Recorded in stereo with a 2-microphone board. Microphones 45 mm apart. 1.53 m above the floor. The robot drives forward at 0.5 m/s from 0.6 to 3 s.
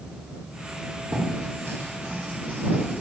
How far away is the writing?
About 0.9 m.